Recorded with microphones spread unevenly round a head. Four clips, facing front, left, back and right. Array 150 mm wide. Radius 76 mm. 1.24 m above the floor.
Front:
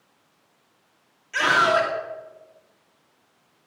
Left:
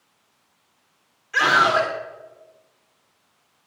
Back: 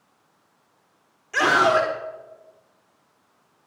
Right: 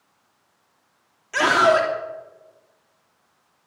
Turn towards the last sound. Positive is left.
turn(degrees=-120)